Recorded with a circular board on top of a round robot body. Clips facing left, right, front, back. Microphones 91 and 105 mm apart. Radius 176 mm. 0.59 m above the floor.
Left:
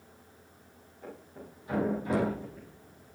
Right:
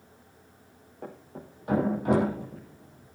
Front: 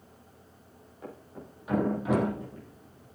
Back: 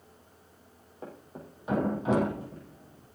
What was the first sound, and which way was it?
A thud, 120° right.